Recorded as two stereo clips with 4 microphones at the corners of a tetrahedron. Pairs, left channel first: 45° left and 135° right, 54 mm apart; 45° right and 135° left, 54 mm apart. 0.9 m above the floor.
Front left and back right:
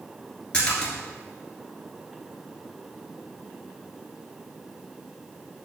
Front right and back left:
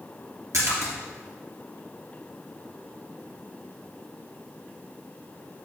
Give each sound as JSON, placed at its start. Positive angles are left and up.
{"t": 0.5, "sound": "a splash", "azimuth_deg": 115, "distance_m": 3.0}